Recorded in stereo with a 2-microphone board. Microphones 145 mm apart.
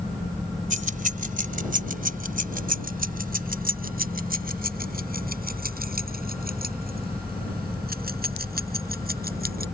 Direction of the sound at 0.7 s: 60° right (ahead or behind).